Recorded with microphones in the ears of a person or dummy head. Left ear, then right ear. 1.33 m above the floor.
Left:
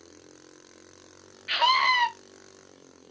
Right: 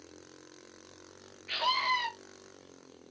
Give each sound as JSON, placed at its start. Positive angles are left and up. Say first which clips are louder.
{"t": 1.5, "sound": "a scream", "louder": "left 8 dB", "side_deg": 45, "distance_m": 0.6}